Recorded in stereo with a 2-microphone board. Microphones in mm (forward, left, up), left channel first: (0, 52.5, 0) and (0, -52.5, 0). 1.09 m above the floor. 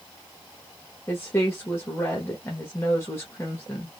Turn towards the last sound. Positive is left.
turn(degrees=20)  # may be behind; listen again after turning